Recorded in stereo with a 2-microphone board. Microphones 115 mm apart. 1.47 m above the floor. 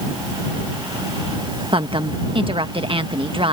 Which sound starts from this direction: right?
A woman speaking, at 1.7 s.